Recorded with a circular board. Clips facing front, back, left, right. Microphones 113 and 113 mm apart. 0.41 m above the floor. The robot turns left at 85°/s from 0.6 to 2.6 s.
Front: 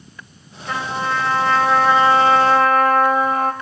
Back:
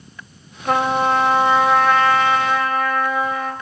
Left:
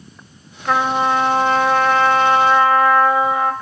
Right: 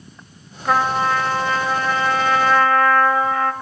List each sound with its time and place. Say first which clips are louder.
0.7 s a trumpet: back 6 dB, left 1 dB; 175° right, 2 m; by 3.5 s 20° left, 2 m